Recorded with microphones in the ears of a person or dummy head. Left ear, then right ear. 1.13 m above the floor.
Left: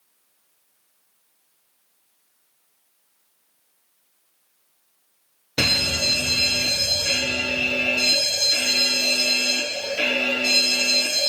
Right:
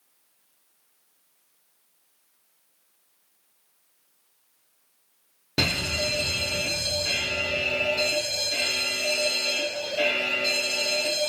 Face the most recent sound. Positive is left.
turn(degrees=15)  # may be behind; listen again after turning